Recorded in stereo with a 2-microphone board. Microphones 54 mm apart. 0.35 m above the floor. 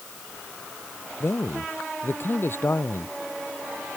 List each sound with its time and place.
1.2 s a man speaking: 50° left (ahead or behind)